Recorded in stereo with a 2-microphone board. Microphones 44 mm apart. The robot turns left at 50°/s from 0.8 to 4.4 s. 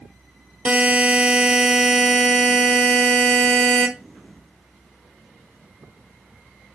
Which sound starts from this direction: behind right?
A buzzer, at 0.7 s.